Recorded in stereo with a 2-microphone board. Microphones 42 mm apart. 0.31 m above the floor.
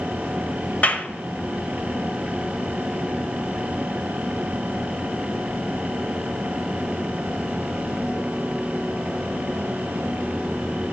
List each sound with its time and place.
0.8 s a clap: 40° left (ahead or behind), 0.9 m